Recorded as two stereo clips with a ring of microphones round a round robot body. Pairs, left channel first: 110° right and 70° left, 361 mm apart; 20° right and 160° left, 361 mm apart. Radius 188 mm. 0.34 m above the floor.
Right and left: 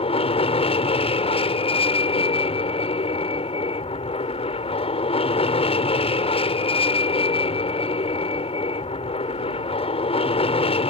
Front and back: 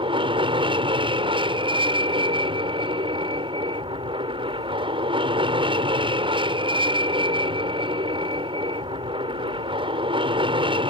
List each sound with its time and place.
0.0 s an aircraft: 155° right